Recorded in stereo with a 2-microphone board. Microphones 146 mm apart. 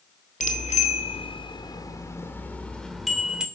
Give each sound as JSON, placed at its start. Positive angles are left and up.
{"t": 0.4, "sound": "a bicycle bell", "side_deg": 55, "distance_m": 2.5}